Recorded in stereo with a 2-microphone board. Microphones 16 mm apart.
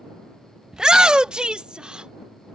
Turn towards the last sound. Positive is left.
turn(degrees=-75)  # may be behind; listen again after turning